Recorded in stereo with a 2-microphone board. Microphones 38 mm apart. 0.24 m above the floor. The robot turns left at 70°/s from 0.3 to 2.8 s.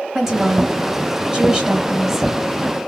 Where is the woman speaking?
10° right (ahead or behind), 0.9 m; by 2.3 s 5° right (ahead or behind), 0.9 m.